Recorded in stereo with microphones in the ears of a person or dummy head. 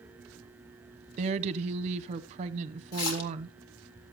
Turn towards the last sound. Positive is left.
turn(degrees=80)